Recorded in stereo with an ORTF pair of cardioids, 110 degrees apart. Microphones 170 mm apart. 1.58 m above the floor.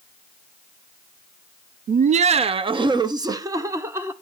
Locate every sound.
1.9 s laughter: 50° right, 0.7 m; by 4.1 s 15° right, 1.6 m